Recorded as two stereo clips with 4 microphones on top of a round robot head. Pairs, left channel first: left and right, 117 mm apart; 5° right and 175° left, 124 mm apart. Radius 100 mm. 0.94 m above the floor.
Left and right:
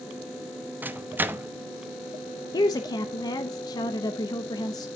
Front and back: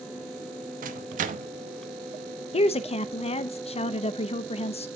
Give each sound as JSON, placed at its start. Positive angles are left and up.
{"t": 0.8, "sound": "a microwave", "azimuth_deg": -165, "distance_m": 0.9}
{"t": 2.5, "sound": "a woman speaking", "azimuth_deg": 30, "distance_m": 0.7}